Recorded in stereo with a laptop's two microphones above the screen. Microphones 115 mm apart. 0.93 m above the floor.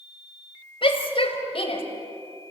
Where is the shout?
50° left (ahead or behind), 4 m; by 1.8 s 55° left (ahead or behind), 4 m.